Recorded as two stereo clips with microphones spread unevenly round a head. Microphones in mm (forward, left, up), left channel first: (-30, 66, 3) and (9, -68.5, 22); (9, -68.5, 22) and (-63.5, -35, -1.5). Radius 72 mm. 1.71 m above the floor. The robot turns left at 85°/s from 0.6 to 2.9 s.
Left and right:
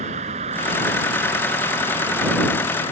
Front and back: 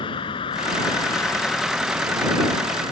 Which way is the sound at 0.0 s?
30° right.